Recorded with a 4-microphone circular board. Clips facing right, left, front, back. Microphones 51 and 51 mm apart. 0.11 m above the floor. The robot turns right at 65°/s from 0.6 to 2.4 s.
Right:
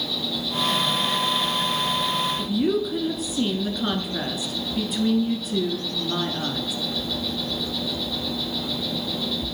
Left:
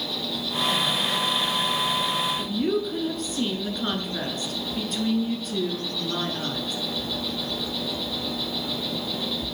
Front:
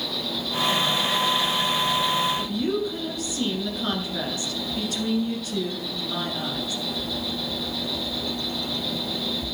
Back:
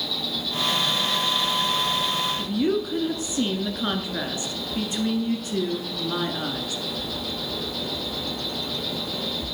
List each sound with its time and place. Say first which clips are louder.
0.0 s an insect: right 2 dB, even; 25° left, 4 m; by 9.5 s 140° left, 4 m
2.4 s a woman speaking: right 2 dB, back 2 dB; 165° right, 1.4 m; by 6.8 s 160° right, 1.4 m